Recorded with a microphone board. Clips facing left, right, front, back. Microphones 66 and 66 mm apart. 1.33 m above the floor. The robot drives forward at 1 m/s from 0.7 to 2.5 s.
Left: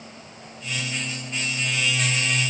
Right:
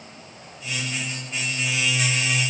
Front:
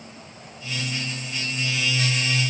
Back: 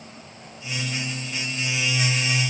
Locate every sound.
Only background noise.